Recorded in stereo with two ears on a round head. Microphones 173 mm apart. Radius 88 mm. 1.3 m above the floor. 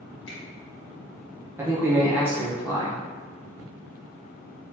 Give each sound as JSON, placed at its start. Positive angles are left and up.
{"t": 0.3, "sound": "a finger snap", "side_deg": 65, "distance_m": 1.7}
{"t": 1.6, "sound": "a man speaking", "side_deg": -10, "distance_m": 0.6}